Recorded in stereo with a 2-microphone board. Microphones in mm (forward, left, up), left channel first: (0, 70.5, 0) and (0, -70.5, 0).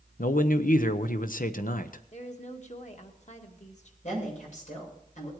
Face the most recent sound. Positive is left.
turn(degrees=60)  # may be behind; listen again after turning